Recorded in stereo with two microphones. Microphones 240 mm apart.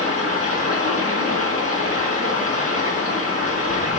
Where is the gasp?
No gasp in this recording.